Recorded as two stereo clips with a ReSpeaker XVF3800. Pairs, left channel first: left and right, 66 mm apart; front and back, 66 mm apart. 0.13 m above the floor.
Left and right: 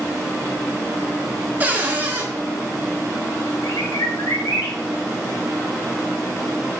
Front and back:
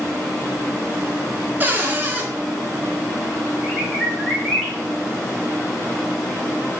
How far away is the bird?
About 1.9 m.